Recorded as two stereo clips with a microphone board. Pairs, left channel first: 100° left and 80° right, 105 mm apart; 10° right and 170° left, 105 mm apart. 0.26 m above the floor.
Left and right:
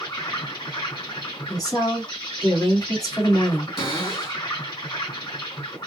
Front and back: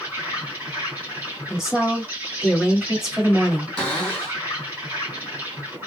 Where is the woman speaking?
90° left, 1.7 m.